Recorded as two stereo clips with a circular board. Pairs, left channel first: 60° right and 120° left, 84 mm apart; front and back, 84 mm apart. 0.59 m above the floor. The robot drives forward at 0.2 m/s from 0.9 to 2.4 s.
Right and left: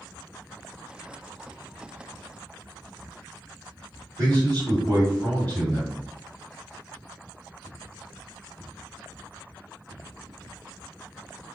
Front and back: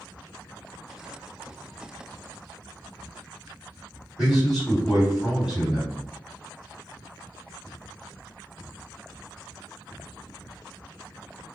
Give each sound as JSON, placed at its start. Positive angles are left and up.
{"t": 4.2, "sound": "a man speaking", "azimuth_deg": 105, "distance_m": 1.8}